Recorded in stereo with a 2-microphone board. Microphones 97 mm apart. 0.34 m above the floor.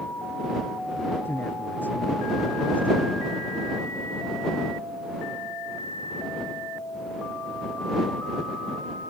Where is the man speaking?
20° left (ahead or behind); by 3.3 s 15° left (ahead or behind).